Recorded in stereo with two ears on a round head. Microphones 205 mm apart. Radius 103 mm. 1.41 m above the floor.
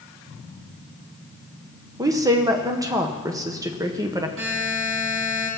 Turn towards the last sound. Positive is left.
turn(degrees=-60)  # may be behind; listen again after turning